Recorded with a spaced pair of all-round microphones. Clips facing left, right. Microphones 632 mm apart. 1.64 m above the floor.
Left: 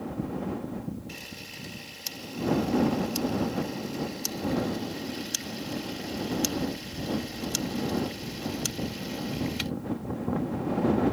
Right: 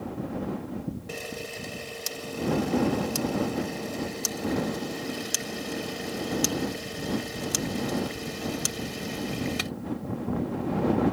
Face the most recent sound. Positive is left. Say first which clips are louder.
# right 8 dB
turn(degrees=-85)